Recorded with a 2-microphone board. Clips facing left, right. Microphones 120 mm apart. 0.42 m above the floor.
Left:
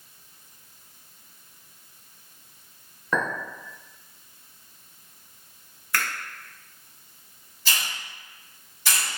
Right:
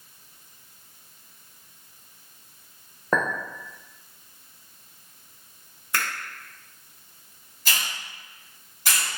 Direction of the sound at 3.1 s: 40° right (ahead or behind).